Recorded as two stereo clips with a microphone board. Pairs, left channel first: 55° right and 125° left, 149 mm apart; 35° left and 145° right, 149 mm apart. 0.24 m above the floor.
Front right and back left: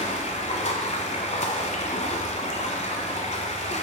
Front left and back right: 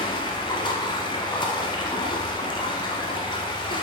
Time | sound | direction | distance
0.0 | running water | 20° right | 1.4 m